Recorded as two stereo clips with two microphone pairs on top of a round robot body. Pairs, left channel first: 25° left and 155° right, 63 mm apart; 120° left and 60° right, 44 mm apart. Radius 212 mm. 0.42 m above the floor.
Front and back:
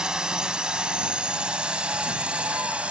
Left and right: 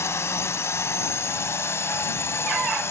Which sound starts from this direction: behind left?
A drone, at 0.0 s.